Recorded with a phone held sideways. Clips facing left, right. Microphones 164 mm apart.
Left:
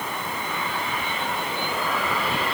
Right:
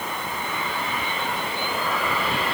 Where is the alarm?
No alarm in this recording.